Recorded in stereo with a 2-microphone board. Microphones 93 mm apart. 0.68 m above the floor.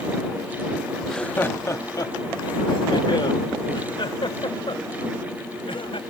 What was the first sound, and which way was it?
Laughter, centre (ahead or behind).